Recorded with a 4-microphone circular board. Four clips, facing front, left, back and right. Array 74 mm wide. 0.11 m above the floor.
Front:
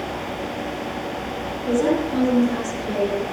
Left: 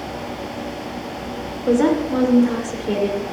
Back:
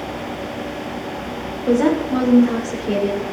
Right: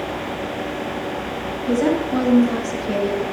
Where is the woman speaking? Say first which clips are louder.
Left 3 dB, back 4 dB; 120° left, 7 m; by 3.2 s 125° left, 7 m.